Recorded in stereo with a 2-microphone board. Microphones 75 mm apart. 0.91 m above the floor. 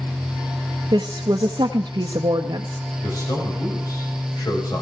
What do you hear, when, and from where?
0.9 s a woman speaking: 70° right (ahead or behind), 0.7 m
3.0 s a man speaking: 60° left (ahead or behind), 4 m